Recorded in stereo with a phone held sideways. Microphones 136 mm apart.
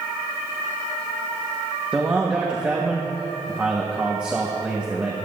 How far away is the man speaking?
About 1.3 m.